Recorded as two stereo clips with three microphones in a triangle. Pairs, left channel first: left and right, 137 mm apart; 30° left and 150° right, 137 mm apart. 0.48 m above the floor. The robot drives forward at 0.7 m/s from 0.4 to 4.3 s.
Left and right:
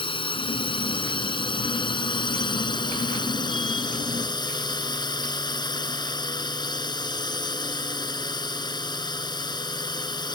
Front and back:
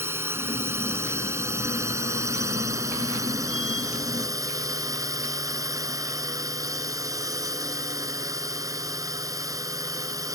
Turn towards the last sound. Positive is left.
turn(degrees=145)